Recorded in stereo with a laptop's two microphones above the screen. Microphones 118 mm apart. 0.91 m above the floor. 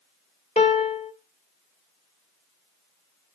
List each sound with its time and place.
0.6 s a piano: 80° left, 1.3 m